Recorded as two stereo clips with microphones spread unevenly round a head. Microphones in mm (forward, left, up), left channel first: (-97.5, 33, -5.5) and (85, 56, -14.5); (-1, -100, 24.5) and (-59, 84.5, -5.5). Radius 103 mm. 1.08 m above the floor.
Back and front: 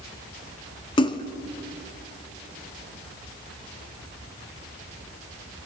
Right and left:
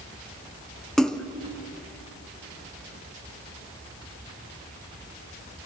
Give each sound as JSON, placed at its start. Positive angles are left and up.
{"t": 1.0, "sound": "a splash", "azimuth_deg": -145, "distance_m": 0.6}